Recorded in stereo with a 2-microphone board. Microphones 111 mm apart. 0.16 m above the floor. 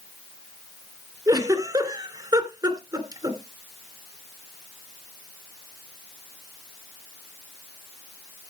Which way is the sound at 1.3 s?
35° right (ahead or behind).